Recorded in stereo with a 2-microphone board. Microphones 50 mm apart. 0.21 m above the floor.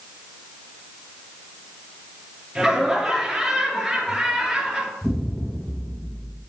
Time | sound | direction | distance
2.5 | laughter | 5° right (ahead or behind) | 3 m
5.0 | an explosion | centre (ahead or behind) | 2.5 m